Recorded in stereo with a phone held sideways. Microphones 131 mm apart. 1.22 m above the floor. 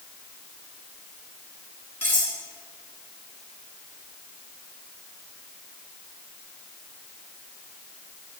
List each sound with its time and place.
2.0 s cutlery clinking: 15° left (ahead or behind), 6 m